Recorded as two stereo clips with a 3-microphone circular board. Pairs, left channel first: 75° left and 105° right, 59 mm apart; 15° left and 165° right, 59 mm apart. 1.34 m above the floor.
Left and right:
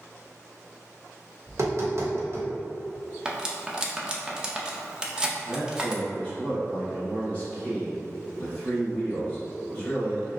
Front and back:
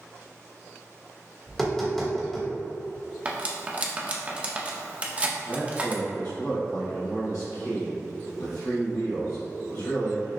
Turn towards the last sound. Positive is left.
turn(degrees=10)